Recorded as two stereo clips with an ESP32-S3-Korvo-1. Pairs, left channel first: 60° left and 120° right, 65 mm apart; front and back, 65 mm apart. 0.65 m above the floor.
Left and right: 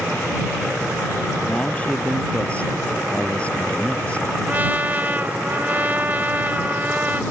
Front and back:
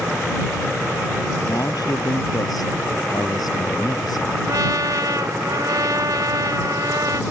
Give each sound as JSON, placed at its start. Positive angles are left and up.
{"t": 1.5, "sound": "a man speaking", "azimuth_deg": -10}
{"t": 4.5, "sound": "a trumpet", "azimuth_deg": 180}